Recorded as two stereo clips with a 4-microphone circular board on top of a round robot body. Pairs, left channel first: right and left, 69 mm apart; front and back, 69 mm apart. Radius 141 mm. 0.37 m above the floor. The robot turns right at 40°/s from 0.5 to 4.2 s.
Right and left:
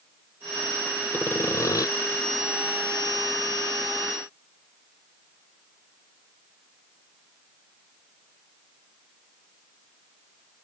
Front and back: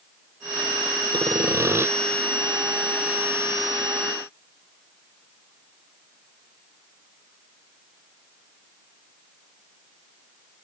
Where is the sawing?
155° right; by 1.9 s 125° right.